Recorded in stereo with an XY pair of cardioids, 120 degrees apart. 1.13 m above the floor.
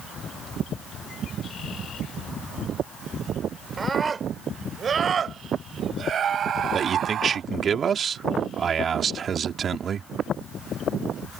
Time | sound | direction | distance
3.8 | a scream | 25° right | ?
6.7 | a man speaking | 40° right | ?